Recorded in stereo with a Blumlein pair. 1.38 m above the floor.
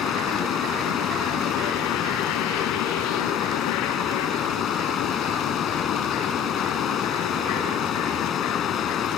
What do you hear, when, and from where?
0.0 s running water: 25° left